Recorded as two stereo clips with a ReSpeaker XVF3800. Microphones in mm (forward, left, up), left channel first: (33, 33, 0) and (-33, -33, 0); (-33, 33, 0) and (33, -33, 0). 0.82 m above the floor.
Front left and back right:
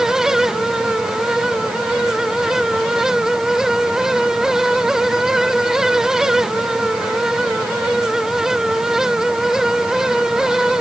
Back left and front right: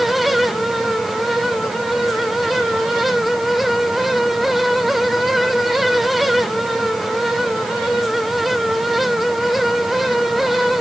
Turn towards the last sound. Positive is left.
No sound to turn to.